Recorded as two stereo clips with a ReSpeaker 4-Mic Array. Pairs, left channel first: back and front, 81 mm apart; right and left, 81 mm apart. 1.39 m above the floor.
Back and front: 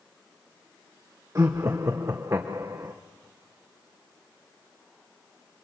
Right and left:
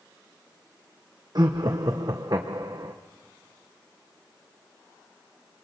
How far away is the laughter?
About 0.9 m.